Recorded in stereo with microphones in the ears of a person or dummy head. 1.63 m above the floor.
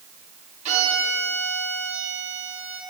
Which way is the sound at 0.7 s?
35° right (ahead or behind).